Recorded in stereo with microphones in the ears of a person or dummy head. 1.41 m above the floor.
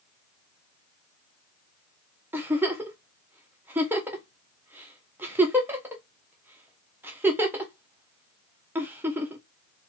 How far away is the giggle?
About 0.5 m.